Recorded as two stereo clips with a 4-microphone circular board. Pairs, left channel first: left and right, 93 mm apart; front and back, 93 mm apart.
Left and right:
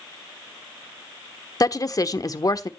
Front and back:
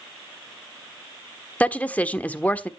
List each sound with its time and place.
1.6 s a woman speaking: 70° left, 1.2 m